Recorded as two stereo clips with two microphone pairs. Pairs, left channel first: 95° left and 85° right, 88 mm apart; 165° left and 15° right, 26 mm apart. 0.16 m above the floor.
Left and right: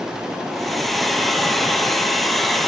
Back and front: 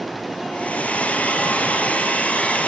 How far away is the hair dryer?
About 2.5 m.